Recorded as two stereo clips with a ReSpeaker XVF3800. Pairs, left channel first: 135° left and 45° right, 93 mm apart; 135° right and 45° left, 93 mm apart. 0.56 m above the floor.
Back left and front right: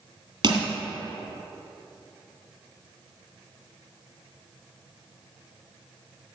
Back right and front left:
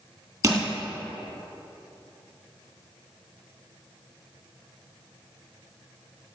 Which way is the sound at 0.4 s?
15° right.